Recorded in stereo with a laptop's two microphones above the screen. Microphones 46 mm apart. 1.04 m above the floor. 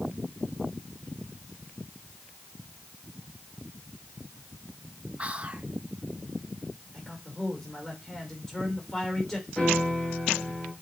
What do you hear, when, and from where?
5.2 s whispering: 25° right (ahead or behind), 1.2 m
6.9 s a man speaking: centre (ahead or behind), 3.5 m
9.6 s a piano: 5° left (ahead or behind), 3.5 m